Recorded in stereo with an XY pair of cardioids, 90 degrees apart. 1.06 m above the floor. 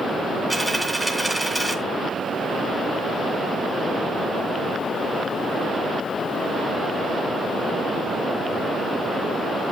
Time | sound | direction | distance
0.5 | a dropped coin | 5° left | 2.5 m